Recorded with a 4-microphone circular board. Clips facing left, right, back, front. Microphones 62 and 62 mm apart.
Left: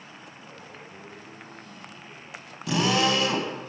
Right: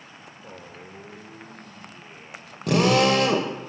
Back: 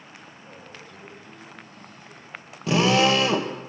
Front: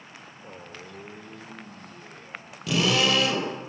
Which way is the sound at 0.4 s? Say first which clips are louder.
Right 5 dB, front 4 dB; 40° right.